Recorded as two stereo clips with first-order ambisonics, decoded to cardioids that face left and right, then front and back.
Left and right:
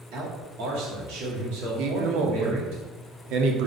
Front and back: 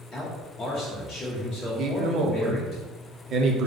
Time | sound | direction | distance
0.1 | a man speaking | 65° right | 1.7 m
1.8 | a man speaking | 125° right | 0.7 m